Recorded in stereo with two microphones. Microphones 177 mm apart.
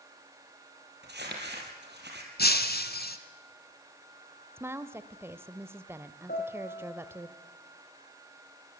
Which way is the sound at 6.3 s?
60° left (ahead or behind).